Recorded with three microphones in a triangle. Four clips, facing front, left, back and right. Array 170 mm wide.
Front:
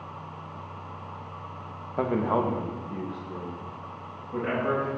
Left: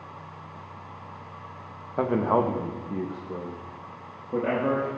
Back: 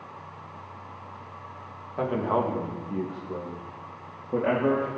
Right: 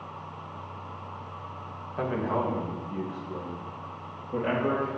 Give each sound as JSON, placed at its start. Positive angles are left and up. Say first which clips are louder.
{"t": 2.0, "sound": "a man speaking", "louder": "left 5 dB, even", "azimuth_deg": 65, "distance_m": 0.7}